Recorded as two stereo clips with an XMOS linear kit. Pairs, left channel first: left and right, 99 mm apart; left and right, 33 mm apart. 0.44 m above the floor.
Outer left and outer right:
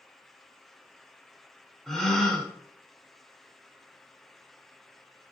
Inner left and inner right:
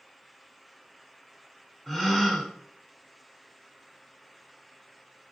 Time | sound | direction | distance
1.9 | a gasp | 5° left (ahead or behind) | 0.8 m